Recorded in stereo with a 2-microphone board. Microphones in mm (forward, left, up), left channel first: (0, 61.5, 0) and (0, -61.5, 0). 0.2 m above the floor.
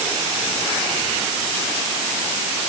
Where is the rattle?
No rattle in this recording.